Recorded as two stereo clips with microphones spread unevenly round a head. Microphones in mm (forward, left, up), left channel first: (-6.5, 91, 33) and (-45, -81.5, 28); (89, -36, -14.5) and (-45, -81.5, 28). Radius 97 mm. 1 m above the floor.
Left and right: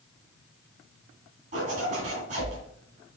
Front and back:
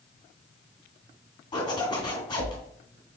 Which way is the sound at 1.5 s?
50° right.